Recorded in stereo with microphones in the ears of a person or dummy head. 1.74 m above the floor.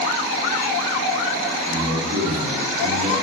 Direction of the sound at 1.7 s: 40° right (ahead or behind).